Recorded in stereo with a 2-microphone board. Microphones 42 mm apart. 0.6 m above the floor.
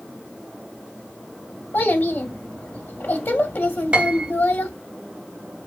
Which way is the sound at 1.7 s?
55° left (ahead or behind).